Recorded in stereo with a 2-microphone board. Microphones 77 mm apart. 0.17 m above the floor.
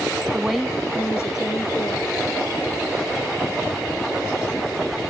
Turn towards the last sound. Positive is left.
turn(degrees=60)  # may be behind; listen again after turning